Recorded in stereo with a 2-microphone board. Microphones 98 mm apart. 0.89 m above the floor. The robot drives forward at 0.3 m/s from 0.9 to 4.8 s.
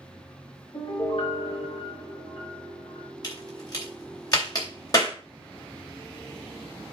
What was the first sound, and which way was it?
A piano, 75° left (ahead or behind).